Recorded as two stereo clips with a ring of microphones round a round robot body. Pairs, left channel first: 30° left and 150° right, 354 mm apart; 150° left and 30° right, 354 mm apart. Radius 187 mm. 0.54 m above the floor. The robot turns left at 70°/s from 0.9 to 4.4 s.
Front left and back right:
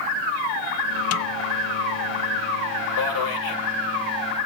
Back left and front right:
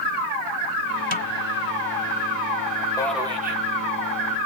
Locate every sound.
1.1 s a snare drum: 80° left, 0.6 m; by 1.3 s 70° left, 0.6 m
3.0 s a man speaking: 70° left, 2 m; by 3.6 s 25° left, 2 m